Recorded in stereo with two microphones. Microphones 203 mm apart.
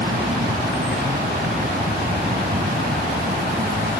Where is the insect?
45° right (ahead or behind).